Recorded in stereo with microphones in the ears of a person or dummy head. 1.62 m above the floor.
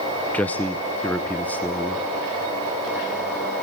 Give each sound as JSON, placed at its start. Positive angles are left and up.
{"t": 0.3, "sound": "a man speaking", "side_deg": 5, "distance_m": 0.9}